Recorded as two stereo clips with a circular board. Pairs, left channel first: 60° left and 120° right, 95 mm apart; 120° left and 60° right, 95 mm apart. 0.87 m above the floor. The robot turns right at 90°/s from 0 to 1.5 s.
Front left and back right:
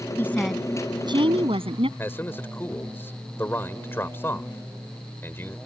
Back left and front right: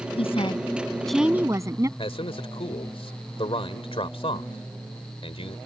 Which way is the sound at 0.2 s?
125° left.